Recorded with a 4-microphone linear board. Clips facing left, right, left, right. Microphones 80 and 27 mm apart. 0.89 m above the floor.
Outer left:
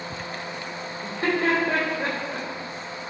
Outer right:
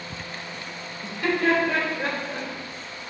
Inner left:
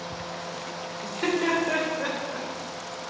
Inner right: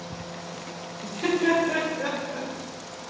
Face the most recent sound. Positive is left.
turn(degrees=30)  # may be behind; listen again after turning